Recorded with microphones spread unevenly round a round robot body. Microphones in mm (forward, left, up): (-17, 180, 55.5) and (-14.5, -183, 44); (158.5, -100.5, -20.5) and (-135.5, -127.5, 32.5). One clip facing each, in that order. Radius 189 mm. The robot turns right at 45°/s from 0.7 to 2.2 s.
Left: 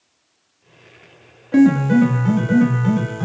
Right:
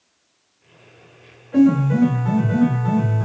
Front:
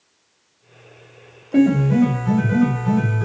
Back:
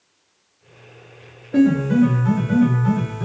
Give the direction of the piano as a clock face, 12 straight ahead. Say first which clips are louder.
Left 2 dB, even; 9 o'clock.